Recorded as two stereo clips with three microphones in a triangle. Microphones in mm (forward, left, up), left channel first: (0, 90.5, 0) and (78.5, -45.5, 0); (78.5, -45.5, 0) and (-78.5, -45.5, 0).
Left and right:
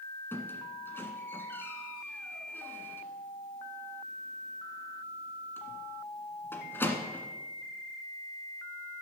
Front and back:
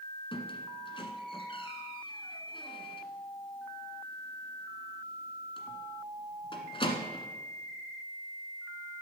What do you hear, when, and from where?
0.3 s a squeak: 45° left, 1.6 m